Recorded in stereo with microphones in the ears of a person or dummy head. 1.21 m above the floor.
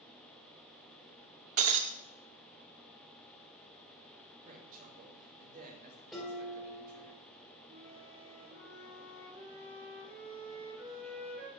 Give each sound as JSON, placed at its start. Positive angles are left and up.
{"t": 1.6, "sound": "breaking glass", "side_deg": -40, "distance_m": 0.7}
{"t": 4.5, "sound": "a woman speaking", "side_deg": -45, "distance_m": 2.0}
{"t": 6.1, "sound": "dishes clattering", "side_deg": 0, "distance_m": 3.0}
{"t": 7.7, "sound": "a flute", "side_deg": -35, "distance_m": 2.5}